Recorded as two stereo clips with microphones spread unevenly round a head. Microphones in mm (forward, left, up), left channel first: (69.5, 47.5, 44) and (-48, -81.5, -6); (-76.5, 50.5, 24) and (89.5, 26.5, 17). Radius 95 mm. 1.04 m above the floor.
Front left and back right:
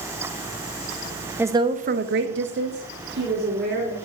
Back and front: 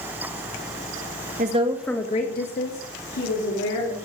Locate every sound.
1.4 s a woman speaking: 55° right, 1.1 m; by 4.1 s 175° right, 3.5 m